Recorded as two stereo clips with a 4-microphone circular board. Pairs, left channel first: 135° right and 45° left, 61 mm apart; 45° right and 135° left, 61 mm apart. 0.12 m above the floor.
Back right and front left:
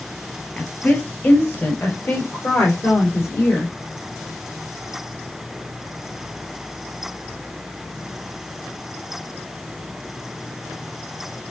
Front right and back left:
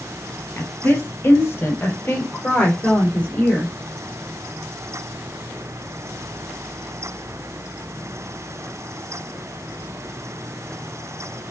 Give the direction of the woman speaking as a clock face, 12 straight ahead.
3 o'clock.